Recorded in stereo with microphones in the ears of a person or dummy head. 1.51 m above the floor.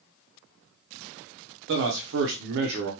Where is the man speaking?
60° right (ahead or behind), 0.6 m.